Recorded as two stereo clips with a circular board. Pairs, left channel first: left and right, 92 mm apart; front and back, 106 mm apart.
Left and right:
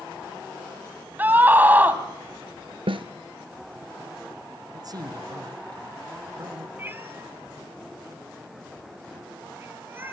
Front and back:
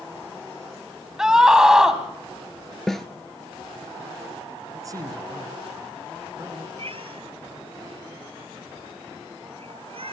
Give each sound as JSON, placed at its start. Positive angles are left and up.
{"t": 1.2, "sound": "a scream", "azimuth_deg": -105, "distance_m": 1.7}
{"t": 2.9, "sound": "a snare drum", "azimuth_deg": -85, "distance_m": 1.0}
{"t": 4.7, "sound": "a man speaking", "azimuth_deg": -125, "distance_m": 3.0}
{"t": 6.8, "sound": "a cat meowing", "azimuth_deg": -155, "distance_m": 1.6}